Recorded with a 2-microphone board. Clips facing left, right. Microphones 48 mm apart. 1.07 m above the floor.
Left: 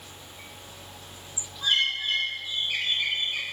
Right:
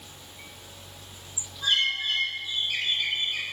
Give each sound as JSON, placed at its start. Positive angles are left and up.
{"t": 1.6, "sound": "a bird", "side_deg": 25, "distance_m": 1.7}